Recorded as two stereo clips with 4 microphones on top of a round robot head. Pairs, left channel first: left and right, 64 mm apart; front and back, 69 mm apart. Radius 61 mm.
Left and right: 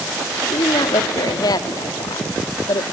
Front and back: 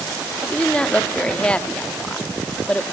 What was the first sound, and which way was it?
A woman speaking, 75° left.